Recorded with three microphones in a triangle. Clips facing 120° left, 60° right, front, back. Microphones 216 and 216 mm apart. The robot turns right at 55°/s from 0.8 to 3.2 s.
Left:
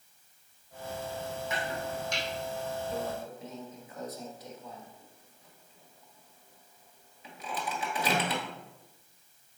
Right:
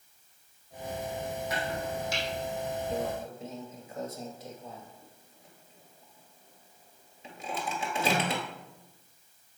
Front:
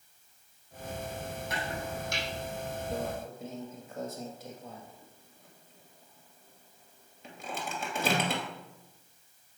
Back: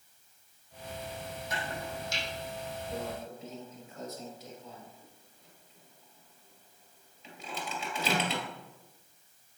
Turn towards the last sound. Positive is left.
turn(degrees=0)